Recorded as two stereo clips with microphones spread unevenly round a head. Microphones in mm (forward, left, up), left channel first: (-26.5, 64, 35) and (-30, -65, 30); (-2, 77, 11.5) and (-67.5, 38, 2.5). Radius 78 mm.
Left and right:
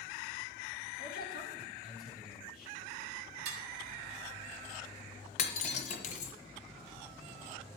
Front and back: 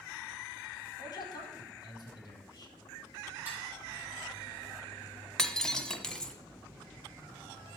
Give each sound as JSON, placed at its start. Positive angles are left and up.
{"t": 1.0, "sound": "a man speaking", "azimuth_deg": 65, "distance_m": 4.0}
{"t": 3.5, "sound": "dishes clattering", "azimuth_deg": -70, "distance_m": 1.7}
{"t": 5.4, "sound": "breaking glass", "azimuth_deg": 105, "distance_m": 1.5}